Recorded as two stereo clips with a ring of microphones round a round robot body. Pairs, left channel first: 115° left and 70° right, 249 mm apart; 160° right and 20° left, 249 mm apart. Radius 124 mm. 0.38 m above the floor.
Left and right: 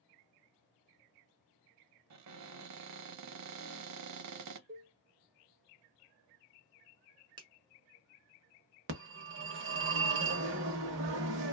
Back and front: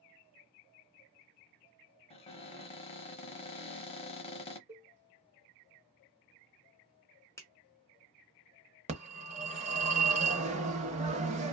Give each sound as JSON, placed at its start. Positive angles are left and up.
{"t": 2.1, "sound": "a cupboard door", "azimuth_deg": -90, "distance_m": 0.6}
{"t": 4.7, "sound": "a cowbell", "azimuth_deg": -35, "distance_m": 1.4}
{"t": 7.4, "sound": "a finger snap", "azimuth_deg": -100, "distance_m": 0.8}
{"t": 8.9, "sound": "a phone ringing", "azimuth_deg": -40, "distance_m": 0.8}